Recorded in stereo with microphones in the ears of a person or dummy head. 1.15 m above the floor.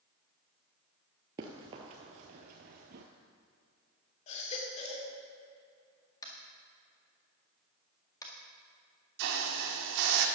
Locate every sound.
1.4 s running footsteps: 20° right (ahead or behind), 1.2 m; by 3.0 s 45° right (ahead or behind), 1.5 m
4.3 s a baby crying: 35° left (ahead or behind), 2 m
6.2 s tapping: 15° left (ahead or behind), 1.8 m
9.2 s a hiss: 60° right (ahead or behind), 1.4 m